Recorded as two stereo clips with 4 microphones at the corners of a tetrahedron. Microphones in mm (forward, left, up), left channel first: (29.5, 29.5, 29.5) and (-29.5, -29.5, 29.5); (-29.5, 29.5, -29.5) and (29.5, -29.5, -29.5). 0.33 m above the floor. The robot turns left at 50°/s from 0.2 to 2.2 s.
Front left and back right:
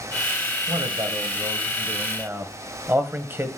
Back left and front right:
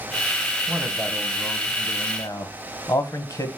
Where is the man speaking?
115° right, 1.5 m; by 3.5 s 170° left, 1.5 m.